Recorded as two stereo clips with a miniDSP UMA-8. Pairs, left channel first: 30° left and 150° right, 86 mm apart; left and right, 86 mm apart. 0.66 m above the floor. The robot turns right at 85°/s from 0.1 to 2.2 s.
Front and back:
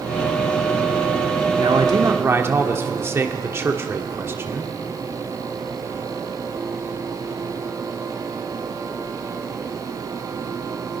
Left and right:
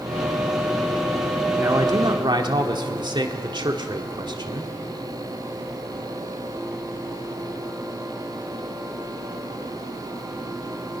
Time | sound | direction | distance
1.6 | a man speaking | 145° right | 1.9 m